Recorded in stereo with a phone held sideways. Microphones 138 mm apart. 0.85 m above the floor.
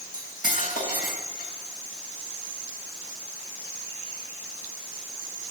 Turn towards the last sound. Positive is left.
turn(degrees=90)